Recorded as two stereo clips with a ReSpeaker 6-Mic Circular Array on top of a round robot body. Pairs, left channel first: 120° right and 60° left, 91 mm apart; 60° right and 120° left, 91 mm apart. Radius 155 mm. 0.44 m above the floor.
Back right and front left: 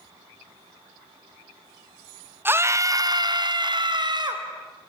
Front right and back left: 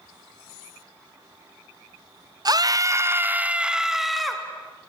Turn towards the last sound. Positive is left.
turn(degrees=30)